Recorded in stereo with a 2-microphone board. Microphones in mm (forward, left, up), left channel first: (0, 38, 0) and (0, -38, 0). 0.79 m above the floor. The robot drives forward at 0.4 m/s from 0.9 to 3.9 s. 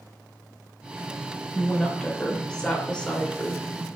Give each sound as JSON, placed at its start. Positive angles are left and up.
{"t": 1.5, "sound": "a woman speaking", "side_deg": 10, "distance_m": 2.5}